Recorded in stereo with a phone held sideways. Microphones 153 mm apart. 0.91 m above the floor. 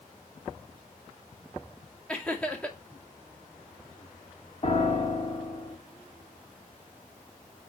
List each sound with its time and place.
2.1 s laughter: 10° left (ahead or behind), 2 m
4.6 s a piano: 45° left (ahead or behind), 2 m